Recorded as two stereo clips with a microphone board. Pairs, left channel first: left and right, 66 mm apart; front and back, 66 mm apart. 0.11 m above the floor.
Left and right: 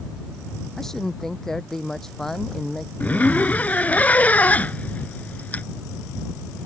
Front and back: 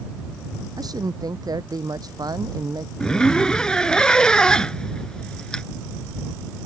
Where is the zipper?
65° left.